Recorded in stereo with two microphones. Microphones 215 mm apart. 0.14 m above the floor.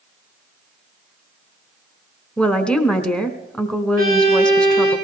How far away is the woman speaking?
About 1.2 m.